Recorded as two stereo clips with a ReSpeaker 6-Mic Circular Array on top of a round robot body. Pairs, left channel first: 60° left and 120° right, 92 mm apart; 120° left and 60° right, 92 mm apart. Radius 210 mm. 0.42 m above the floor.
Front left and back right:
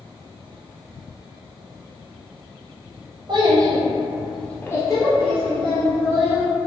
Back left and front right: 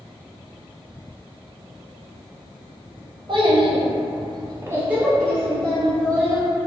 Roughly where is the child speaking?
Right.